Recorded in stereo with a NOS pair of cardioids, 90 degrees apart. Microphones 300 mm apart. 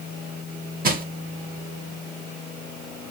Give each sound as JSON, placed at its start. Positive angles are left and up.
{"t": 0.8, "sound": "crushing", "azimuth_deg": -30, "distance_m": 0.8}